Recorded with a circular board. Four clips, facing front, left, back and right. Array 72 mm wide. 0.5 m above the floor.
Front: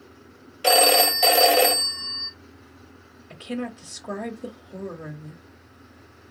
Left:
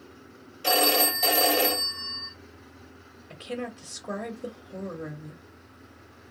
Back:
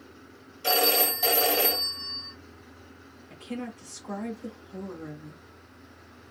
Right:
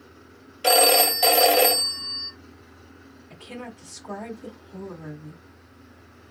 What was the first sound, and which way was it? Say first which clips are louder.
A phone ringing: right 5 dB, front 7 dB; 40° right.